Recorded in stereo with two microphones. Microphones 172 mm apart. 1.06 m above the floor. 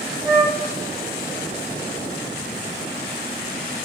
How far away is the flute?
About 1.9 m.